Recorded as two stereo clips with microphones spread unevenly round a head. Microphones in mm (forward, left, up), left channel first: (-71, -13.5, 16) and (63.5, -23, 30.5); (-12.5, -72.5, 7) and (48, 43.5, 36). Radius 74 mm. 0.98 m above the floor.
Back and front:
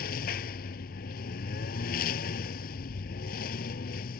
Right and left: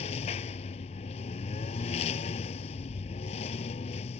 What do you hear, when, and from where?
0.0 s a lawn mower: 165° right